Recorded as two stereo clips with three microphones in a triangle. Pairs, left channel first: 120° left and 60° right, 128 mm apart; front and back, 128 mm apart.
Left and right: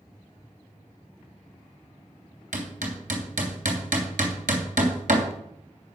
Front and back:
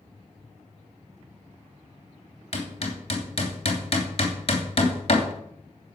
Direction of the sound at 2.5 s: 45° right.